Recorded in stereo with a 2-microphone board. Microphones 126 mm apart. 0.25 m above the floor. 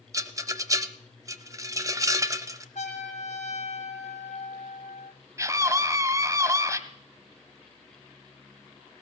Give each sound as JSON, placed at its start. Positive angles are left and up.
{"t": 0.1, "sound": "a rattle", "side_deg": -25, "distance_m": 0.9}
{"t": 2.8, "sound": "a trumpet", "side_deg": 75, "distance_m": 5.0}
{"t": 5.4, "sound": "a scream", "side_deg": -25, "distance_m": 1.5}